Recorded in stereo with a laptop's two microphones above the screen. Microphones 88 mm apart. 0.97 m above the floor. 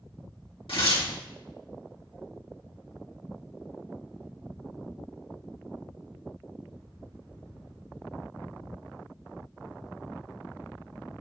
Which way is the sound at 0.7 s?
75° left (ahead or behind).